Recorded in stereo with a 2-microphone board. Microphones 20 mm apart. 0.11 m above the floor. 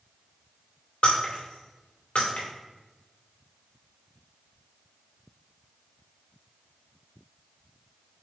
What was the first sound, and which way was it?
Breaking glass, 70° left (ahead or behind).